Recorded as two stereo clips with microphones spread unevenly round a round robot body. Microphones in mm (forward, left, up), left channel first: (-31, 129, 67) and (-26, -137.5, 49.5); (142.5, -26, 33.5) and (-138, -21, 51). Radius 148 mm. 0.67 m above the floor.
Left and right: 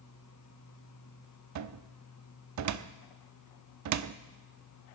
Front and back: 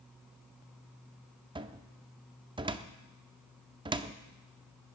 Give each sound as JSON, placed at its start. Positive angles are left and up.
{"t": 1.6, "sound": "a cupboard door", "azimuth_deg": -105, "distance_m": 0.7}